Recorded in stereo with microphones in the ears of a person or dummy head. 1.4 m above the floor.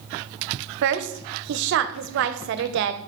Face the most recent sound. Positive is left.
turn(degrees=-75)  # may be behind; listen again after turning